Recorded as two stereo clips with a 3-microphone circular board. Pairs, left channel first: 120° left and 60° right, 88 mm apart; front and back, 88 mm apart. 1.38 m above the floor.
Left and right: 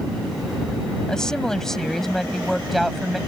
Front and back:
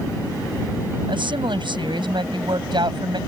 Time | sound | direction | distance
1.1 | a woman speaking | 155° right | ?